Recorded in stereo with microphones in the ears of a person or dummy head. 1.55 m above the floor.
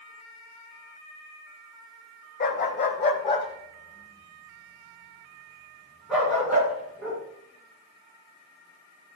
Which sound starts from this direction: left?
A dog barking, at 2.4 s.